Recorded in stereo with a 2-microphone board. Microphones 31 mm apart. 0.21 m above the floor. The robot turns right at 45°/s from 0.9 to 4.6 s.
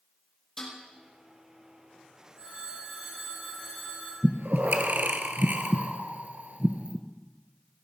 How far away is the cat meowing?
I don't hear a cat meowing.